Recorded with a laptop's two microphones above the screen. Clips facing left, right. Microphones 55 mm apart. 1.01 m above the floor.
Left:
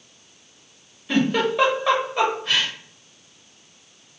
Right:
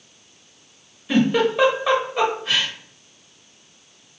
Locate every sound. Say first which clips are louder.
1.1 s a giggle: right 2 dB; centre (ahead or behind), 0.8 m